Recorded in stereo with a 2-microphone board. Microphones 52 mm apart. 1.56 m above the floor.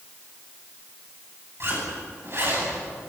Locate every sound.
1.6 s a zipper: 55° right (ahead or behind), 10 m